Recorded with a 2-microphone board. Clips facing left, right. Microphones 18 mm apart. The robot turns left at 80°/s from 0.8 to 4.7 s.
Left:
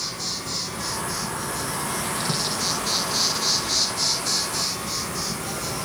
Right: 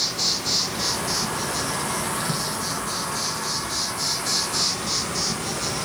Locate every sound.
0.0 s an insect: 70° right, 1.0 m; by 5.8 s 25° right, 1.0 m